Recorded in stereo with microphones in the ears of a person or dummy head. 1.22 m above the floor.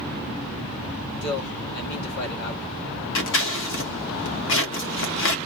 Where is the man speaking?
60° left (ahead or behind), 2.5 m.